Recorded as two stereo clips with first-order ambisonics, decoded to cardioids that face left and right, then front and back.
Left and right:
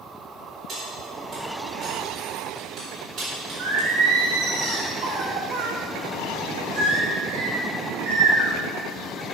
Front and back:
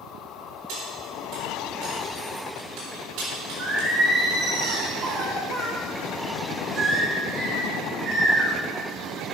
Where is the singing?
110° right, 1.7 m.